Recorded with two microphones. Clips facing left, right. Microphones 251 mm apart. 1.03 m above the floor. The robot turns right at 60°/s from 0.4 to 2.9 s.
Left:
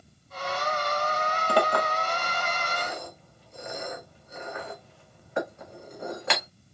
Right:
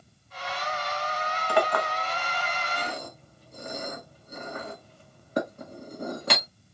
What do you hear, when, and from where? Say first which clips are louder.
1.5 s a clink: even; 45° left (ahead or behind), 1.6 m; by 6.5 s 40° right (ahead or behind), 1.6 m